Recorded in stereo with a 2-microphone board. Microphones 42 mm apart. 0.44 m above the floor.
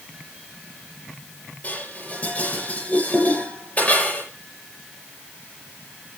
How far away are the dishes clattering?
About 6.5 m.